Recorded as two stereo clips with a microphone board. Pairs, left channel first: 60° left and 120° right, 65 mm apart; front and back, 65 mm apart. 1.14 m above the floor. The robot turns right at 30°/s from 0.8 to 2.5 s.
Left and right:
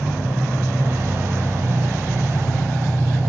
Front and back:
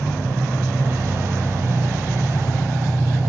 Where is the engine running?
65° right, 5 m; by 3.3 s 15° right, 5 m.